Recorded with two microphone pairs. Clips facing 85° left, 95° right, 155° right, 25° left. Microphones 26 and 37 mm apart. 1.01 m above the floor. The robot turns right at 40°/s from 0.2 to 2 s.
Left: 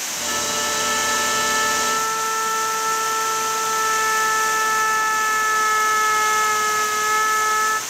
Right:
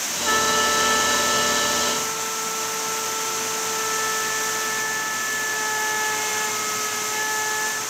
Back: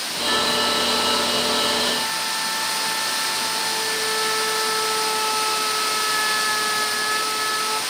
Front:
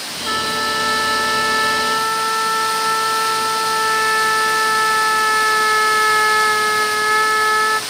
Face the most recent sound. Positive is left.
turn(degrees=20)